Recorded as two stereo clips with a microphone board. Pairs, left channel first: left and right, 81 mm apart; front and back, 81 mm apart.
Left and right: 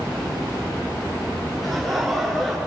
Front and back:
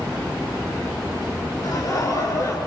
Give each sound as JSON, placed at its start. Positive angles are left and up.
{"t": 1.6, "sound": "laughter", "azimuth_deg": 0, "distance_m": 2.5}